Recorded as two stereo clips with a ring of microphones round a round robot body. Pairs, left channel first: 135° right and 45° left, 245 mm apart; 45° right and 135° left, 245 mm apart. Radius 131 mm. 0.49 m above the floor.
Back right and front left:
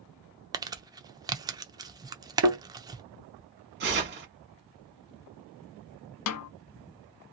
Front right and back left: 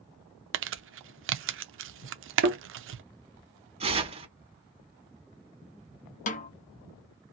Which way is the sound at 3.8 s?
75° left.